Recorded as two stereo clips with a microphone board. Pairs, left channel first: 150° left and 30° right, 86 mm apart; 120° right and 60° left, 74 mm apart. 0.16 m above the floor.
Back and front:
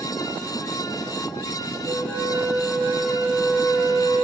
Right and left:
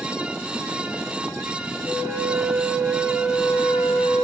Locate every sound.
1.8 s a flute: straight ahead, 1.8 m